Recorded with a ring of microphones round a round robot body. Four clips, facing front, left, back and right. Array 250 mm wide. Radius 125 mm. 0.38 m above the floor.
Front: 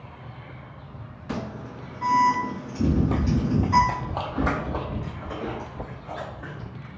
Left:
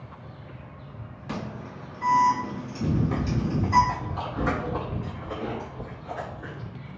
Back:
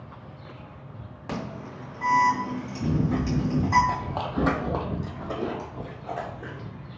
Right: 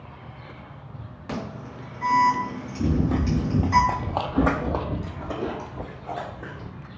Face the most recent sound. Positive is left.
turn(degrees=-145)